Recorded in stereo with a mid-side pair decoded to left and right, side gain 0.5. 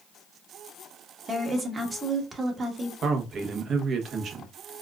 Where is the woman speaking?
30° right, 1.5 m.